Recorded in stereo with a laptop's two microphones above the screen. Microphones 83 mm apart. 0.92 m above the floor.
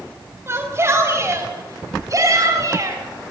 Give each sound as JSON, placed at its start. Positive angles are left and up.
{"t": 0.5, "sound": "a shout", "side_deg": -30, "distance_m": 5.5}